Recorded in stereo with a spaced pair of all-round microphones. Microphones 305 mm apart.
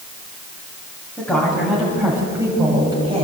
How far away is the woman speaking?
About 7.5 m.